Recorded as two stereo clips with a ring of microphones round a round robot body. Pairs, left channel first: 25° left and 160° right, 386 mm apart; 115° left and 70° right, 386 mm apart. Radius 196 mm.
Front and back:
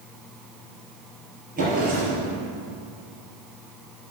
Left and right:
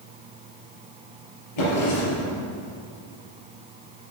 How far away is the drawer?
About 4.5 m.